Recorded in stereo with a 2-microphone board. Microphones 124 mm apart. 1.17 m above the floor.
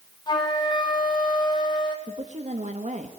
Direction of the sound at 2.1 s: 70° right (ahead or behind).